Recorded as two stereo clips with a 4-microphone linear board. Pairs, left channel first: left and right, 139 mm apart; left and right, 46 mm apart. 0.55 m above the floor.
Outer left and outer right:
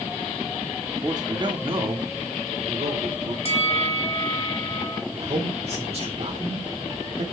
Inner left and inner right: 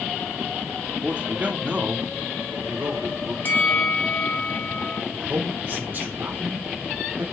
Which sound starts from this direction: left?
A bell, at 3.5 s.